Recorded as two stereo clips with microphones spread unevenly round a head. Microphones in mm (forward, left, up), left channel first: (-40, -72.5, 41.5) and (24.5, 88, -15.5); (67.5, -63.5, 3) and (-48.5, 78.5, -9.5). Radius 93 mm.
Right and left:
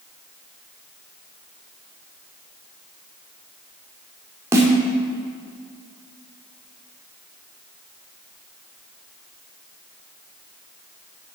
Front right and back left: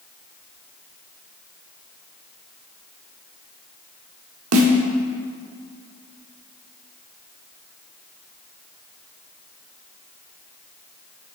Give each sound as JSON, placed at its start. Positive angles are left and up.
{"t": 4.5, "sound": "a snare drum", "azimuth_deg": 145, "distance_m": 1.1}